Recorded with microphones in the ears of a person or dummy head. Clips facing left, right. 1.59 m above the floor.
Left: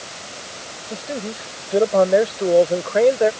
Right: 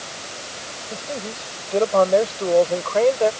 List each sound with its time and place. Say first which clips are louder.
0.9 s a man speaking: left 3 dB; 15° left (ahead or behind); by 3.3 s 20° left (ahead or behind)